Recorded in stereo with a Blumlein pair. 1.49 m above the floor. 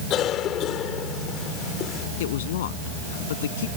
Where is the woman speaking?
55° left.